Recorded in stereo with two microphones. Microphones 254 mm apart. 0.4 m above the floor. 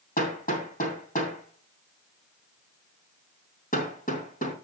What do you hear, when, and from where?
0.2 s hammering: 35° left (ahead or behind), 3 m